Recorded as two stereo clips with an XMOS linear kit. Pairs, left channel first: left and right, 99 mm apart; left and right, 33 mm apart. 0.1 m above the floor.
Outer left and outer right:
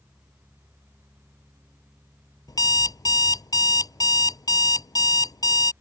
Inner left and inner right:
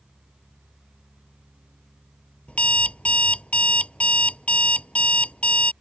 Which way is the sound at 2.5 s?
40° left (ahead or behind).